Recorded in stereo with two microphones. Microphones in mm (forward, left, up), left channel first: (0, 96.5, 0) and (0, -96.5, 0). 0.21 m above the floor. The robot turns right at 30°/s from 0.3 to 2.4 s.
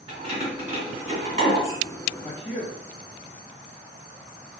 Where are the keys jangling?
30° right (ahead or behind), 1.4 m; by 1.8 s 45° right (ahead or behind), 1.4 m.